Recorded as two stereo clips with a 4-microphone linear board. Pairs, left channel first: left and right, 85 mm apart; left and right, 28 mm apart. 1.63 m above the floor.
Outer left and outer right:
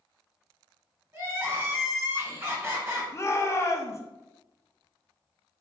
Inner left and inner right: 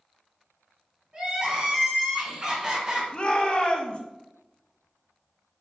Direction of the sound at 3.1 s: 35° left (ahead or behind).